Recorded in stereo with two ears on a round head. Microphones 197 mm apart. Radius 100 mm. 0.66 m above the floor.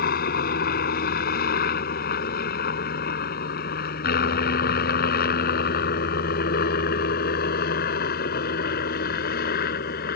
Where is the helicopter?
40° left (ahead or behind).